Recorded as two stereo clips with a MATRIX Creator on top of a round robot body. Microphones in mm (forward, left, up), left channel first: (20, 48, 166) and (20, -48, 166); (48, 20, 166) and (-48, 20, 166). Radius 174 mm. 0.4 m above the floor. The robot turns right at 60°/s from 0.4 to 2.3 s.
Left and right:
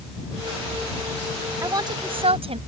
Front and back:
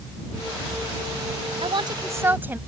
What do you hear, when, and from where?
1.6 s a woman speaking: 150° right; by 2.6 s 110° right